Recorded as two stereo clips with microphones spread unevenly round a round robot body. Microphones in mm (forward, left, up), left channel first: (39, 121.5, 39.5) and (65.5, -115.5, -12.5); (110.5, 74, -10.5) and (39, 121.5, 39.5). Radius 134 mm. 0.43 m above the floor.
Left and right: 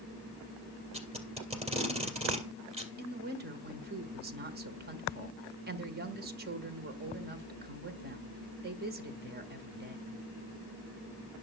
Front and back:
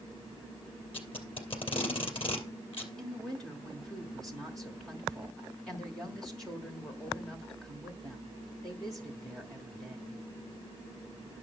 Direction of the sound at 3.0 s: 85° right.